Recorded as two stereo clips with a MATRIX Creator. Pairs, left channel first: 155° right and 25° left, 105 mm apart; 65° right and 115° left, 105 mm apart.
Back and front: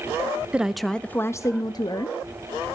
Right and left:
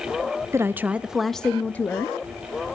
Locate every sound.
0.5 s a woman speaking: 90° left, 0.6 m; by 2.2 s 130° right, 0.9 m